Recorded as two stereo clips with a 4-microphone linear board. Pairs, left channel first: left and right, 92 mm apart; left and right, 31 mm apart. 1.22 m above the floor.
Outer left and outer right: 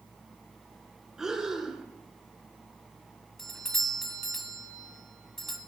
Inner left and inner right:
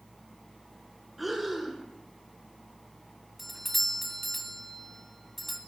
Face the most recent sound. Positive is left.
turn(degrees=5)  # may be behind; listen again after turning